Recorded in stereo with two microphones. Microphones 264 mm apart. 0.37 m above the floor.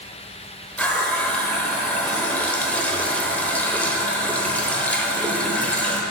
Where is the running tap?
5° left (ahead or behind), 0.7 m.